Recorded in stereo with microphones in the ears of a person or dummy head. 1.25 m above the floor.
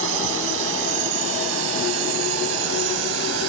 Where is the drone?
75° right (ahead or behind); by 3.5 s 80° right.